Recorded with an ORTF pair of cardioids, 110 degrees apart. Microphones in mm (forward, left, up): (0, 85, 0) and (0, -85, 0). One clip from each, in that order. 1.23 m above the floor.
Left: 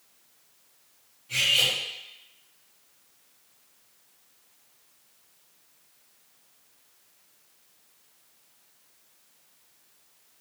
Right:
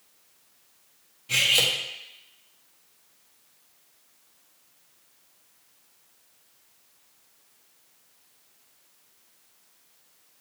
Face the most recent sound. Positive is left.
turn(degrees=-65)